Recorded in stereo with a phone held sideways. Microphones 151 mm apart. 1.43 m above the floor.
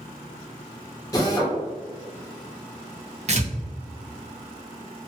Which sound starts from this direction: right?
Tearing paper, at 3.3 s.